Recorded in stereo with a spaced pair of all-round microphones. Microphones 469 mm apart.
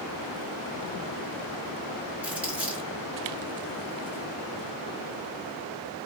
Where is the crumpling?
5° right (ahead or behind), 1.4 m.